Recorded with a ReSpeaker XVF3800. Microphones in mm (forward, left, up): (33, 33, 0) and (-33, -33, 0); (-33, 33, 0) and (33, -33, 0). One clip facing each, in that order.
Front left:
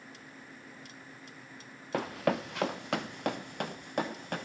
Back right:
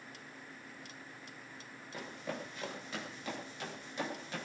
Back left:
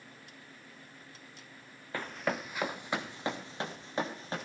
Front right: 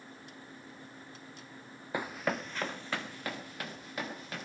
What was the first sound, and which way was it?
Running footsteps, 30° left.